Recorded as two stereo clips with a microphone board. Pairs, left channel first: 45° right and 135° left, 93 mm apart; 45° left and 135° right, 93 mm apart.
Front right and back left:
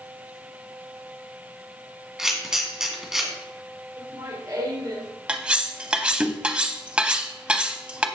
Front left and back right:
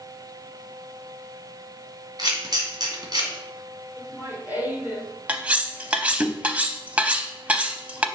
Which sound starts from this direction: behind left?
Laughter, at 4.0 s.